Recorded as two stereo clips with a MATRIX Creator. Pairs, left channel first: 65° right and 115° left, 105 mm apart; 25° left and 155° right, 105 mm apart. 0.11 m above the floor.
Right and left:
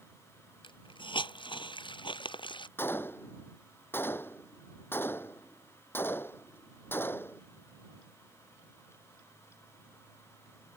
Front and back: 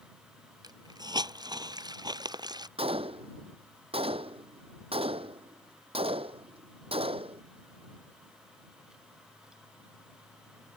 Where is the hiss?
105° right.